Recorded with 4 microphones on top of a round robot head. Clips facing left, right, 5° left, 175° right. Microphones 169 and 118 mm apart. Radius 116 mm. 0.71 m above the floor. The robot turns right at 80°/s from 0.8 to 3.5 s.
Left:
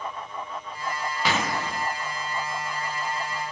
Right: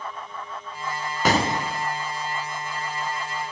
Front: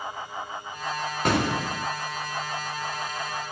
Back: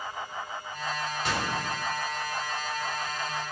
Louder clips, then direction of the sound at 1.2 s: Right 6 dB, front 8 dB; 40° right.